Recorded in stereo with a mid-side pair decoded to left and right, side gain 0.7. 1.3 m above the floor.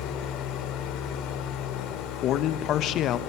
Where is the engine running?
60° left, 3 m.